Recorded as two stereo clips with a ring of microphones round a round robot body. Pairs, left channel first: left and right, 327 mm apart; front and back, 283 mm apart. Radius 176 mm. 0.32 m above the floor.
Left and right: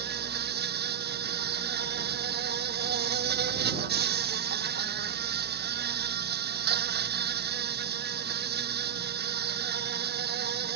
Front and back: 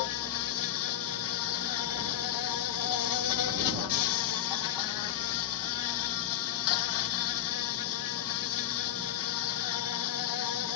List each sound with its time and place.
0.0 s an insect: 30° right